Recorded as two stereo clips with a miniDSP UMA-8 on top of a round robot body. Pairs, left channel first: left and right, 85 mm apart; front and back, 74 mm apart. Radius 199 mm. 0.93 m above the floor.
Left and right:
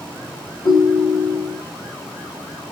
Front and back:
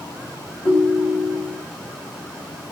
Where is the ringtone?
50° left, 0.5 m.